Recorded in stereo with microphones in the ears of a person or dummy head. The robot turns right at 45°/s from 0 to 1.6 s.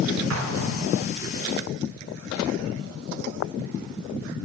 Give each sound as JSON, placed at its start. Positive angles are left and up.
{"t": 0.3, "sound": "an explosion", "side_deg": -70, "distance_m": 0.8}